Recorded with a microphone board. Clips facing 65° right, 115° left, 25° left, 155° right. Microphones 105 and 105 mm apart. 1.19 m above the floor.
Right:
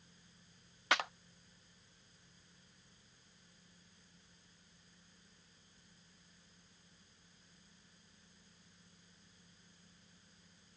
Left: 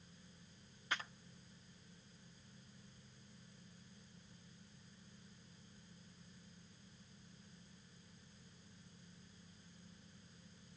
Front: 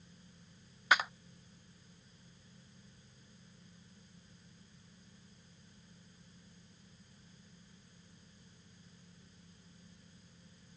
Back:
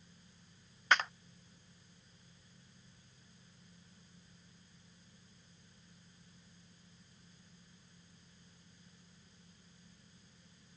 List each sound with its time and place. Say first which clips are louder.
0.9 s a clap: right 9 dB, front 1 dB; 60° right